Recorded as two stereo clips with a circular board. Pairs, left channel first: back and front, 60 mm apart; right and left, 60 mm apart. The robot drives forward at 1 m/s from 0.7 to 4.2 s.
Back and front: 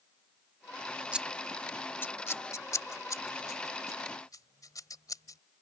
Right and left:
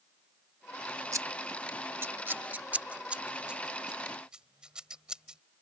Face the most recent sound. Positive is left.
turn(degrees=165)